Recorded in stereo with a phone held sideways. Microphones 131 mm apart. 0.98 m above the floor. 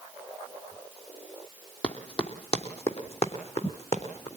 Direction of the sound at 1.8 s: 50° left (ahead or behind).